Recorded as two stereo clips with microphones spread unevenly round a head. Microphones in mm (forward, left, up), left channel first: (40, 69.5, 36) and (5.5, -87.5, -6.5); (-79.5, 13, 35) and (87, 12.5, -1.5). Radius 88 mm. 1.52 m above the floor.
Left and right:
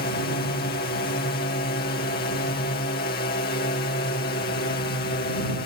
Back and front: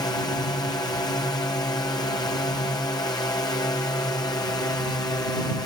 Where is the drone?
110° left.